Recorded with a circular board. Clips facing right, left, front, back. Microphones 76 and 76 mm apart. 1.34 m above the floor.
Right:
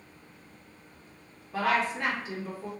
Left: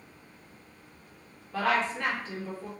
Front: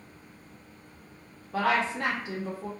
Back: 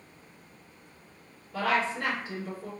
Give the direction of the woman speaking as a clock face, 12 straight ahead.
12 o'clock.